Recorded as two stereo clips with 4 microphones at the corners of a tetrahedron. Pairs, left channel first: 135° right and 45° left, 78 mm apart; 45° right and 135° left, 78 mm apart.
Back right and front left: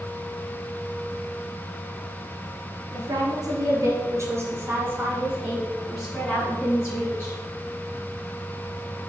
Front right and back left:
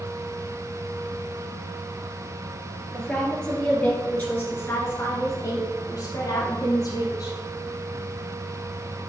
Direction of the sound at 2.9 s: 40° left.